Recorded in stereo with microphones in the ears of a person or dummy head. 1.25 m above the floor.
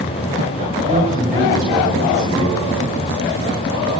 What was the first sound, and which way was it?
A man speaking, 25° right (ahead or behind).